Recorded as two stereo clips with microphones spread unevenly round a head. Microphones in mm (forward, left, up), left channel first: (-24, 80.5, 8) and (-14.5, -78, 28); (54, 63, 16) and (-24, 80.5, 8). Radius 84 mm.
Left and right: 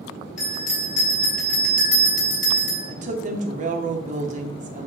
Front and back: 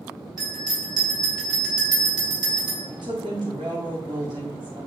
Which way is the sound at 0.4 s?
135° left.